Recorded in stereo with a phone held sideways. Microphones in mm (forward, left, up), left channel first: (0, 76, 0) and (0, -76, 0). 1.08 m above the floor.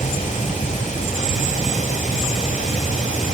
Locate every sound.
0.0 s running water: 55° left (ahead or behind), 2.5 m